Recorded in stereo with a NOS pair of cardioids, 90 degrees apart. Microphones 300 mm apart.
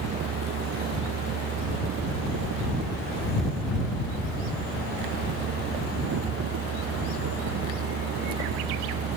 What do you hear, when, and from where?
0.0 s a fan: 70° right